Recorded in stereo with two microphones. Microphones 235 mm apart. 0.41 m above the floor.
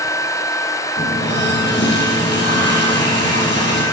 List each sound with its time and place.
1.0 s a running tap: 45° left (ahead or behind), 8 m